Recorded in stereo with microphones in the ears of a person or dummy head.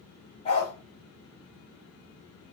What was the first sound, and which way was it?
A dog barking, 25° left (ahead or behind).